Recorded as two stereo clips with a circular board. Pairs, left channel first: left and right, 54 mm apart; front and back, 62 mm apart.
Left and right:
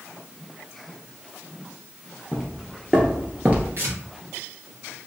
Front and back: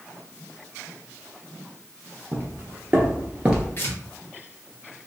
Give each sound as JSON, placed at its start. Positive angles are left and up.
{"t": 2.3, "sound": "footsteps", "azimuth_deg": -170, "distance_m": 1.8}
{"t": 3.8, "sound": "tearing paper", "azimuth_deg": -55, "distance_m": 1.6}